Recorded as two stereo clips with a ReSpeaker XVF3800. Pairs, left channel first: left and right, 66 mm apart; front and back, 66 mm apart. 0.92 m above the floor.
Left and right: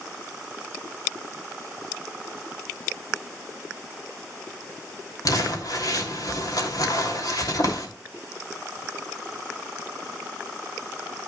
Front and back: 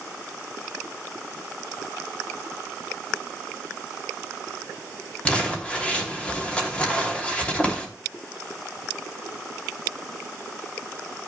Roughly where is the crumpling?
Left.